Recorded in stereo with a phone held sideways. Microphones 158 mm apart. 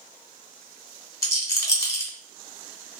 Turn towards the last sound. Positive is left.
turn(degrees=20)  # may be behind; listen again after turning